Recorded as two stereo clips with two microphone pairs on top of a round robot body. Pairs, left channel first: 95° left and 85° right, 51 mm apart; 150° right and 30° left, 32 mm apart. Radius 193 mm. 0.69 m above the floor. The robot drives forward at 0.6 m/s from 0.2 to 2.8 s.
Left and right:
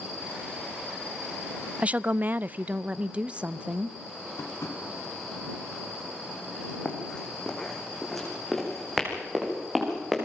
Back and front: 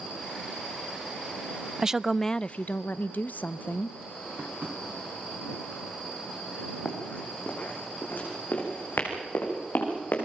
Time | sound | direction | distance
1.8 | a woman speaking | 25° right | 0.6 m
4.4 | tapping | 70° left | 2.5 m
6.8 | running footsteps | 165° left | 2.5 m